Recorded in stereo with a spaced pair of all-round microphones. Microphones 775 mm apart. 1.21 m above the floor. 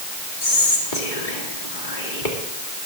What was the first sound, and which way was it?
Whispering, 85° left.